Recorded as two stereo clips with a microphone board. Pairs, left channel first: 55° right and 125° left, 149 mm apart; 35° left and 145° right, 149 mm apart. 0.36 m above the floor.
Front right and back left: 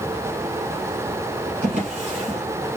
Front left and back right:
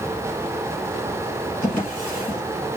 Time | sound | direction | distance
1.6 | a drawer | 90° left | 2.5 m